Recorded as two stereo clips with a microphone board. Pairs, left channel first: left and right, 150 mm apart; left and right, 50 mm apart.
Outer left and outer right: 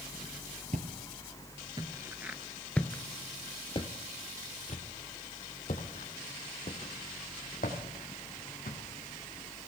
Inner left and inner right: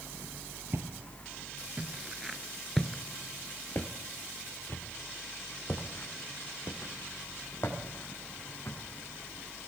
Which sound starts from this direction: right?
Footsteps, at 0.7 s.